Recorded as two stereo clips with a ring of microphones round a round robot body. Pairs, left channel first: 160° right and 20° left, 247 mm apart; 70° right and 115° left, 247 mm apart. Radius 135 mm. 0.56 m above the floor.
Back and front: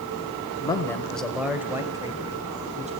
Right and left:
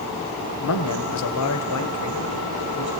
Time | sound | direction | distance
0.6 | a man speaking | 85° right | 2.5 m